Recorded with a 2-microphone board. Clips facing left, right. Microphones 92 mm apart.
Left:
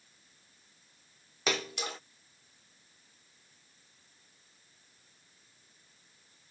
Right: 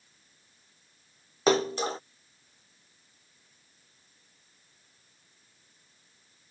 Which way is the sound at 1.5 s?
30° right (ahead or behind).